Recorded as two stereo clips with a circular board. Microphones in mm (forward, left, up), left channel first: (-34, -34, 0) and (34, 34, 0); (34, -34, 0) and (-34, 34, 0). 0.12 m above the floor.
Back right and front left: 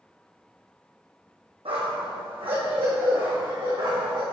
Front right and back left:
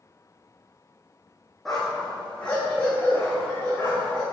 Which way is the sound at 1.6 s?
40° left.